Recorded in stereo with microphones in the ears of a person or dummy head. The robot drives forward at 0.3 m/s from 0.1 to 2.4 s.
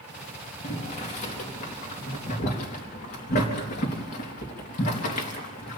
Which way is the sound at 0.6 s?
35° left (ahead or behind).